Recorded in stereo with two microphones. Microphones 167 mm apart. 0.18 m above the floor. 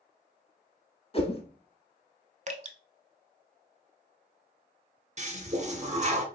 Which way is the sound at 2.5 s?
45° right (ahead or behind).